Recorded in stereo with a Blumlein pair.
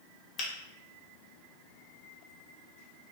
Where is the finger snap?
30° left, 0.7 m.